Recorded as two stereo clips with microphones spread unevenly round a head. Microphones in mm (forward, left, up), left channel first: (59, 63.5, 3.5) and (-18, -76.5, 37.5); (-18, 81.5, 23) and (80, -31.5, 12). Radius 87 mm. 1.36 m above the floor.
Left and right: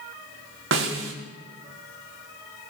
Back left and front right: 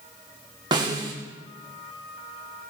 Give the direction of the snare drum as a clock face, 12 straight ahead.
4 o'clock.